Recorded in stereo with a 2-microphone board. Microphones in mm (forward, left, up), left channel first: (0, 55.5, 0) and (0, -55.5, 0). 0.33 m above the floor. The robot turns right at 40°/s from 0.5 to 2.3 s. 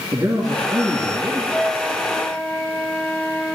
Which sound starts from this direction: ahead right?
A man speaking, at 0.1 s.